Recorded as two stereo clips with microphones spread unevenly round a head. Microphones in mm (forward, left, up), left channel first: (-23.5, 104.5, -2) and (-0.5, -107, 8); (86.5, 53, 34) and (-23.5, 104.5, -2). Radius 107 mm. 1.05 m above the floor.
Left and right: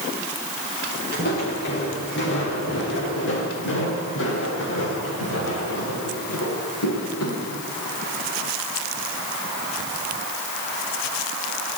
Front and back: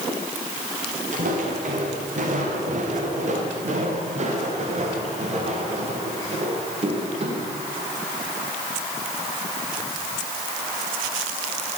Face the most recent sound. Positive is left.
turn(degrees=115)